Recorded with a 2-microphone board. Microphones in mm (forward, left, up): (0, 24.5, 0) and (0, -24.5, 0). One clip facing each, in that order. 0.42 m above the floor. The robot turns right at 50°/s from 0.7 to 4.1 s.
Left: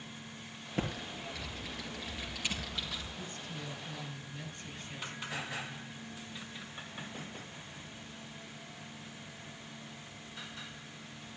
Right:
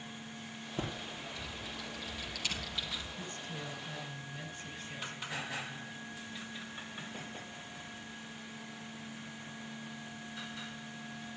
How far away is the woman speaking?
About 4.5 m.